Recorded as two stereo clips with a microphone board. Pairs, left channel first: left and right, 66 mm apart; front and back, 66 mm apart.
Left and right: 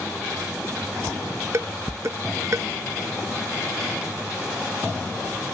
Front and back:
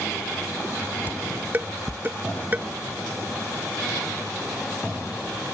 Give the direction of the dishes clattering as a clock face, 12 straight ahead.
4 o'clock.